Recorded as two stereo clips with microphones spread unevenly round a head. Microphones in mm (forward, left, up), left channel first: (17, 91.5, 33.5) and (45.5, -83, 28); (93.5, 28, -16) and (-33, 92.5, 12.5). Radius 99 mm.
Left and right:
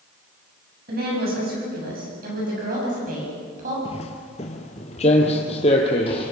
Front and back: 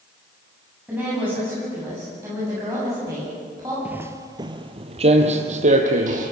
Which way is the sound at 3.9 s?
105° left.